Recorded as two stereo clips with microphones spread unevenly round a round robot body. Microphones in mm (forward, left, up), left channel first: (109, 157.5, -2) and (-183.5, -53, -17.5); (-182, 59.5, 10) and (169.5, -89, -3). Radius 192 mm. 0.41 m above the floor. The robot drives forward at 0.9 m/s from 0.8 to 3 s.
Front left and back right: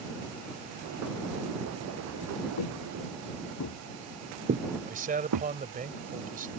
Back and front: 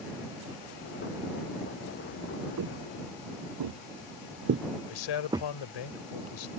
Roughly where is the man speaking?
Behind left.